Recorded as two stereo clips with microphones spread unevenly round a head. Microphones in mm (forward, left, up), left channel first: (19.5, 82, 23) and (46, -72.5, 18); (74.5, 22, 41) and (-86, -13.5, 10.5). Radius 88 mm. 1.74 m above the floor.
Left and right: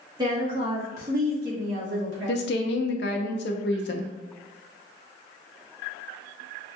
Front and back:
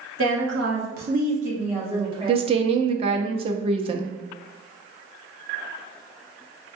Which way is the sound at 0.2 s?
150° right.